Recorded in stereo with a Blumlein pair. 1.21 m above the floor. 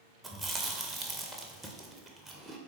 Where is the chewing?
10° right, 0.5 m.